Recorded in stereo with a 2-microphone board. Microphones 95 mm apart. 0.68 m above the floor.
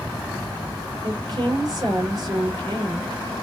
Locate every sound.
1.0 s a woman speaking: 45° right (ahead or behind), 2.5 m